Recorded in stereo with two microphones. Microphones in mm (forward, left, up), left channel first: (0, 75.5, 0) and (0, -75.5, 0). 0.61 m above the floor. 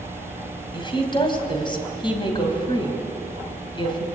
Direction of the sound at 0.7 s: 30° left (ahead or behind).